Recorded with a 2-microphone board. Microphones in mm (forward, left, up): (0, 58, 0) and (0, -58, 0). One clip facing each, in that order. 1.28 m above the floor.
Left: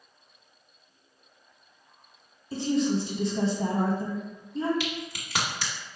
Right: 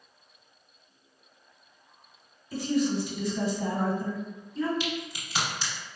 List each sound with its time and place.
2.5 s a woman speaking: 25° left (ahead or behind), 1.2 m
4.8 s a crack: 60° left (ahead or behind), 1.6 m